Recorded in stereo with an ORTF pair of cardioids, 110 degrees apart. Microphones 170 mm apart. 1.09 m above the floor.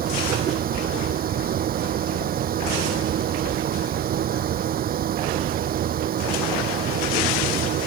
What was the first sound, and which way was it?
A fan, 60° right.